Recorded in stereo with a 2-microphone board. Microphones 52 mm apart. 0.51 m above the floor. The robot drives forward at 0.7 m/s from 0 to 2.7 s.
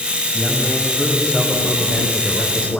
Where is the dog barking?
No dog barking in this recording.